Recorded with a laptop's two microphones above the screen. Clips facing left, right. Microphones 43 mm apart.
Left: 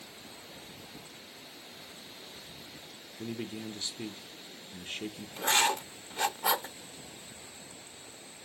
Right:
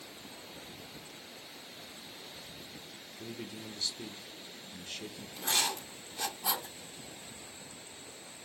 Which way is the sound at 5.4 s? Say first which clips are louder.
Left 6 dB; 45° left (ahead or behind).